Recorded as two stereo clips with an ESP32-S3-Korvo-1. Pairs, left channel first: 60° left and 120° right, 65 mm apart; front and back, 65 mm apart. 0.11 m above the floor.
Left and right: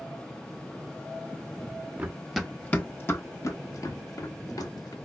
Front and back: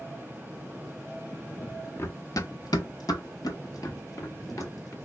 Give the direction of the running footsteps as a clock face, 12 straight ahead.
2 o'clock.